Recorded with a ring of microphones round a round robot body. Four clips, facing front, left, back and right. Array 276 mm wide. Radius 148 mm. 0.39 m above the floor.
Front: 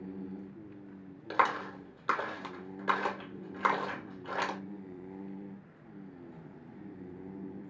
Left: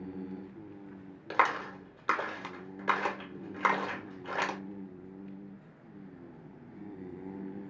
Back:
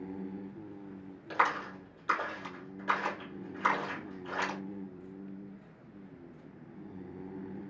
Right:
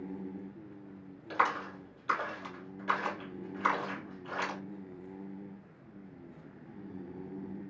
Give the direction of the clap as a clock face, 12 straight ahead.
10 o'clock.